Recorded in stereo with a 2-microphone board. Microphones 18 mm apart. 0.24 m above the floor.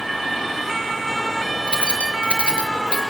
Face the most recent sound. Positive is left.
turn(degrees=75)  # may be behind; listen again after turning